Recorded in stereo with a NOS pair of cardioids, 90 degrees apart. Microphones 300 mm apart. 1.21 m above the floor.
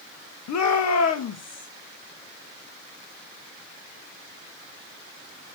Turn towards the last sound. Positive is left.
turn(degrees=55)